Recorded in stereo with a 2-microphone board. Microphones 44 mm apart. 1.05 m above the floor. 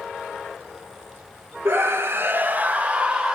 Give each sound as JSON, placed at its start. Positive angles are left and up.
{"t": 1.6, "sound": "a scream", "side_deg": -65, "distance_m": 0.9}